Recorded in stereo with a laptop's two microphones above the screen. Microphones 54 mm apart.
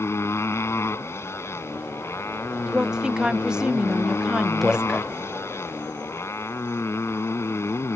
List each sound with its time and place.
0.0 s a motorcycle: 55° left (ahead or behind)
2.7 s a woman speaking: 10° right (ahead or behind)
4.6 s a man speaking: centre (ahead or behind)